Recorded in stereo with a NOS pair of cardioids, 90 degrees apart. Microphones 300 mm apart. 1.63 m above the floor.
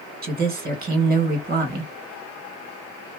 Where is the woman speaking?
30° right, 1.7 m.